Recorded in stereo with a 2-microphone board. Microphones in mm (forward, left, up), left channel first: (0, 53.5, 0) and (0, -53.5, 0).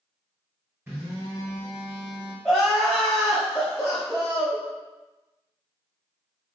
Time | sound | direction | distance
0.9 | a phone buzzing | 20° right (ahead or behind) | 1.5 m
2.5 | crying | 5° left (ahead or behind) | 1.1 m